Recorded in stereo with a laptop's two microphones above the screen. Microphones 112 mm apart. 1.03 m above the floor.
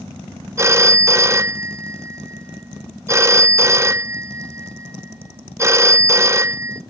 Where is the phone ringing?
25° right (ahead or behind), 0.5 m.